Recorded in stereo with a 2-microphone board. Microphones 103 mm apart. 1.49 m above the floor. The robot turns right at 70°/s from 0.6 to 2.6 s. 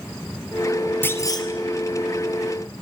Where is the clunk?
20° left, 2.5 m; by 1.5 s 55° left, 2.5 m.